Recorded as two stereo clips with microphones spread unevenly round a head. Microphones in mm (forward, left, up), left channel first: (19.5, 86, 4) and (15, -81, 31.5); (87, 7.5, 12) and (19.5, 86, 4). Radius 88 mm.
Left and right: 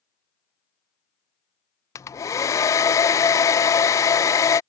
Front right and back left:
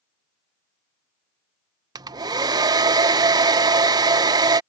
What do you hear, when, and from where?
1.9 s a hair dryer: 140° left